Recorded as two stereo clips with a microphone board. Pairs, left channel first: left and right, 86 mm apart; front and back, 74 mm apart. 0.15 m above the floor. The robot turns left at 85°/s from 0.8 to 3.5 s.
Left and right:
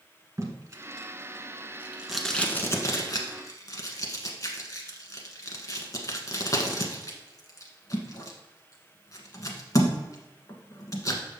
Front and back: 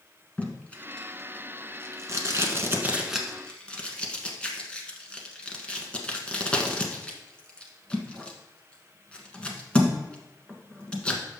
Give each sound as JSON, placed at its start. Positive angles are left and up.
{"t": 0.4, "sound": "tape being pulled", "azimuth_deg": -60, "distance_m": 1.1}